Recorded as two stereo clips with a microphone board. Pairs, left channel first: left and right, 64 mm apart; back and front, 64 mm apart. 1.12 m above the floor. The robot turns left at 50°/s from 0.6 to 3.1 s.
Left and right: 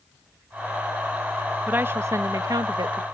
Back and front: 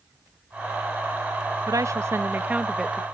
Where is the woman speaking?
25° right; by 3.0 s 95° right.